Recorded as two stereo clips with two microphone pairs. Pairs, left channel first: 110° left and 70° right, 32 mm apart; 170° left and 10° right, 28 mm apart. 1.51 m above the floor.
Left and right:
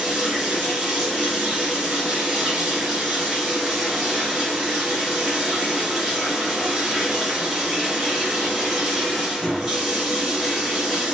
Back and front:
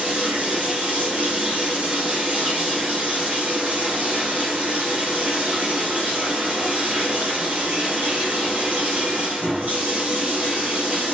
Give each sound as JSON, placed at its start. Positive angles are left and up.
{"t": 0.0, "sound": "running water", "azimuth_deg": 10, "distance_m": 1.9}